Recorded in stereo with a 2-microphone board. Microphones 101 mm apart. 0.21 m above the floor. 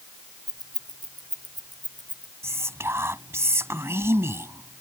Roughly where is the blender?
No blender in this recording.